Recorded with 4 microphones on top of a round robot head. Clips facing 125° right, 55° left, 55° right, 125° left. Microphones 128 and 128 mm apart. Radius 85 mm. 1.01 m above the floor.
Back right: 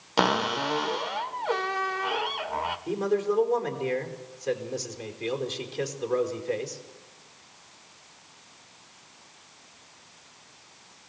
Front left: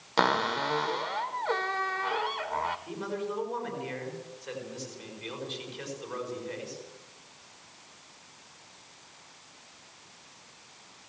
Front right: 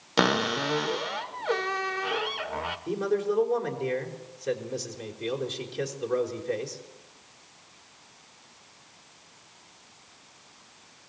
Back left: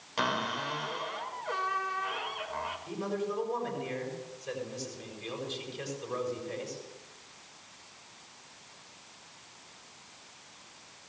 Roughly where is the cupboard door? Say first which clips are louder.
Back right 2 dB, front right 8 dB; ahead right.